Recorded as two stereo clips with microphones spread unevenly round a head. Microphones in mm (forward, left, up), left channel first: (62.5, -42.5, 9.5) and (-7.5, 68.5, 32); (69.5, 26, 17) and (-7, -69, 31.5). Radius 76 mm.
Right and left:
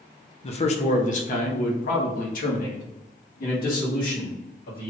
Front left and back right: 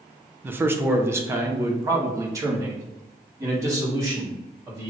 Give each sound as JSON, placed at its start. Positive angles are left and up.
{"t": 0.4, "sound": "a man speaking", "azimuth_deg": -50, "distance_m": 0.8}